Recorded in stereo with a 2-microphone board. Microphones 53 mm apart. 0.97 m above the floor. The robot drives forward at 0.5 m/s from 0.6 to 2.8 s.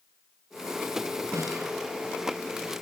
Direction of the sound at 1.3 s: 80° right.